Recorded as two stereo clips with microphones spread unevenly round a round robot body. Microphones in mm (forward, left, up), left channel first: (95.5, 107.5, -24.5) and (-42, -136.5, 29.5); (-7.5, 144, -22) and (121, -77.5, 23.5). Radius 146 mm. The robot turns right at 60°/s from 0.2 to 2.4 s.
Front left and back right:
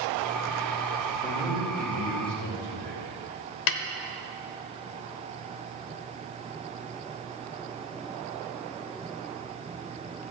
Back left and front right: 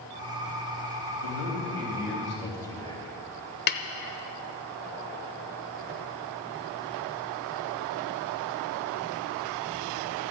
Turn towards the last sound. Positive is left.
turn(degrees=65)